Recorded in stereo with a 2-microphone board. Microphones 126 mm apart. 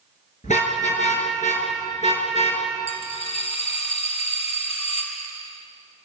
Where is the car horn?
80° left, 7.5 m; by 2.6 s 65° left (ahead or behind), 7 m.